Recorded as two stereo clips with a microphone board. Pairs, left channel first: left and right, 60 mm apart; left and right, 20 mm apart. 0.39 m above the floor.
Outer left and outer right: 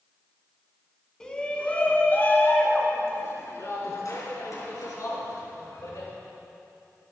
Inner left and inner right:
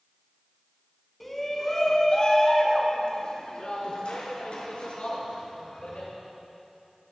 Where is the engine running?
No engine running in this recording.